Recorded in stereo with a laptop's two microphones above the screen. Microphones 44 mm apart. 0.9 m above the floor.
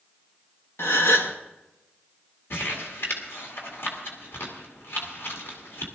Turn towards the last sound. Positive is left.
turn(degrees=65)  # may be behind; listen again after turning